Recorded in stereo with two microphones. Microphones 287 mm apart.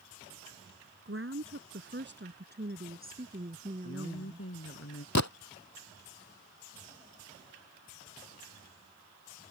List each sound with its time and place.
1.1 s a woman speaking: 45° right (ahead or behind); by 4.5 s 20° right (ahead or behind)
3.8 s a woman speaking: 50° left (ahead or behind)
5.2 s a gunshot: 65° left (ahead or behind)